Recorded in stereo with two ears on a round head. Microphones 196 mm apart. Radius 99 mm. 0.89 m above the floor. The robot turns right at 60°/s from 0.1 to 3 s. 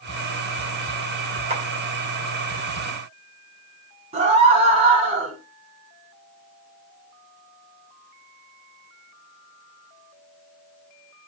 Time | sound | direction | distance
1.5 | a clap | 30° right (ahead or behind) | 3 m
4.1 | a scream | 30° right (ahead or behind) | 7 m